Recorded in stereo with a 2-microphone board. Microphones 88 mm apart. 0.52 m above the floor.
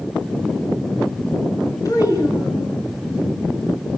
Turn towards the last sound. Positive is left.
turn(degrees=40)  # may be behind; listen again after turning